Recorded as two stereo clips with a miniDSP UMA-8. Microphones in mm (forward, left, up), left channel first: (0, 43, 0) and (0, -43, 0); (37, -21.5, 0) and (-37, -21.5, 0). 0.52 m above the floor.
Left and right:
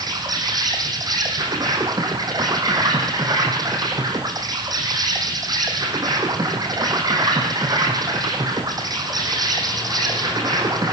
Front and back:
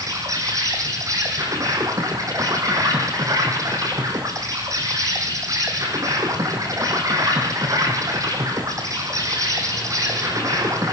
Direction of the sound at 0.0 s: 135° right.